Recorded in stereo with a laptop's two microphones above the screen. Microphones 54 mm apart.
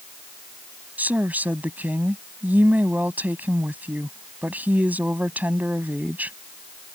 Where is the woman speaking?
30° right (ahead or behind).